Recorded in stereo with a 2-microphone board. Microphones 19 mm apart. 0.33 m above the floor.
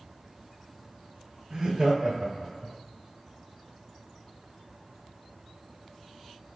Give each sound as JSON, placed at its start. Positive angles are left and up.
{"t": 1.5, "sound": "laughter", "side_deg": -40, "distance_m": 1.5}